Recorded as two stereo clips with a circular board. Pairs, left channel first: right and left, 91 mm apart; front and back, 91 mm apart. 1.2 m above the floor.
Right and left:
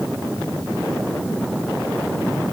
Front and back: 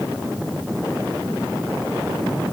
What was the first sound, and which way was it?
Only background noise.